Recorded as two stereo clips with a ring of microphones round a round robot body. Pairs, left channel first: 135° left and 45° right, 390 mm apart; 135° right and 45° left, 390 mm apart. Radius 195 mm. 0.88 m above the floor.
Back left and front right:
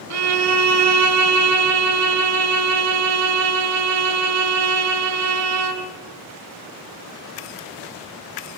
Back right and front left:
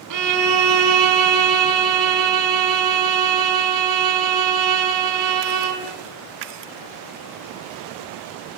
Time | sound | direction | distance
0.1 | a violin | 5° left | 3 m